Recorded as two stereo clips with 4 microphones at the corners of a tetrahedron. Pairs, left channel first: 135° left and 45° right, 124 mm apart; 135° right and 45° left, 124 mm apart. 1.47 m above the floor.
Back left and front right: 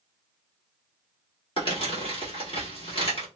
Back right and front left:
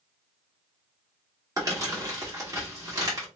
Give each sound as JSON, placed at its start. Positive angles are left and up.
{"t": 1.6, "sound": "crumpling", "azimuth_deg": 105, "distance_m": 1.4}